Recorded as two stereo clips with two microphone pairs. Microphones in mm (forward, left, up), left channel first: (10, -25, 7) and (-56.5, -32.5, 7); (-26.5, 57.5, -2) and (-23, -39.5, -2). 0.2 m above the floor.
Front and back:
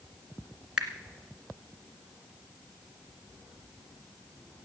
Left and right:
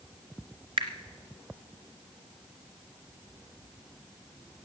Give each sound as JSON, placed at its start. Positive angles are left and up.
{"t": 0.8, "sound": "a finger snap", "azimuth_deg": -95, "distance_m": 2.0}